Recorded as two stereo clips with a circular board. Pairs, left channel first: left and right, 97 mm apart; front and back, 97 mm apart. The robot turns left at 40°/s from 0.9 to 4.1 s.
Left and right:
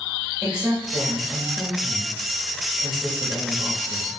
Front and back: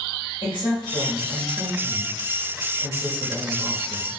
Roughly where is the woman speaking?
Ahead.